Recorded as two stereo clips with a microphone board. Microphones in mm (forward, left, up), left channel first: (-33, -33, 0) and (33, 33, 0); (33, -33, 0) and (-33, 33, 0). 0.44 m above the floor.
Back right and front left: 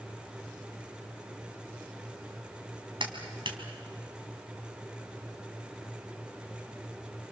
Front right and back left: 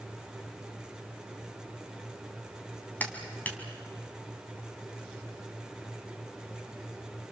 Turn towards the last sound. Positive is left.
turn(degrees=25)